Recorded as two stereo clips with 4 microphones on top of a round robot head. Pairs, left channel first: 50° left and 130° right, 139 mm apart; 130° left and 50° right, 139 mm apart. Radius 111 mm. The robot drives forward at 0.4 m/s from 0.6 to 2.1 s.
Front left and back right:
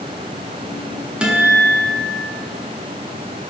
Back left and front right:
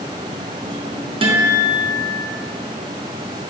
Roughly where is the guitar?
Ahead right.